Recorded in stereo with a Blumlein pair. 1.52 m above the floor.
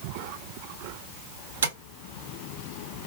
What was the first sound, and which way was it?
Tapping, 65° right.